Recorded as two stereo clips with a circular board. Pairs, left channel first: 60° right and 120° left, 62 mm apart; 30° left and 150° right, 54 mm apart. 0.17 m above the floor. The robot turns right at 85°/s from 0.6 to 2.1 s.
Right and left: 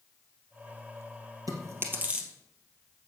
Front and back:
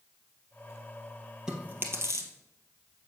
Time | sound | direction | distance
1.5 | chewing | 130° left | 2.0 m